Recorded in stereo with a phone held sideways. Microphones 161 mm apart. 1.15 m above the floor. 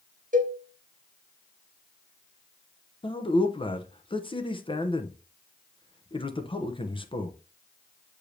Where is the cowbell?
50° right (ahead or behind), 1.2 m.